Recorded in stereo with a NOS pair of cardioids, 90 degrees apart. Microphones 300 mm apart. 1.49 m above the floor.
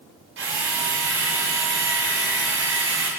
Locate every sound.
0.4 s a drill: 45° right, 7 m